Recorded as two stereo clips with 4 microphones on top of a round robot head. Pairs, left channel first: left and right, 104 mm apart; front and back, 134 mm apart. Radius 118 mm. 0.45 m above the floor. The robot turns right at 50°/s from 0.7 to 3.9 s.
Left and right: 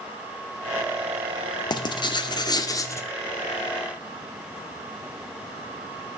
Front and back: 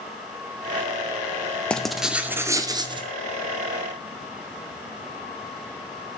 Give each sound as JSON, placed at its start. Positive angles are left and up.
{"t": 1.7, "sound": "writing", "azimuth_deg": 75, "distance_m": 1.1}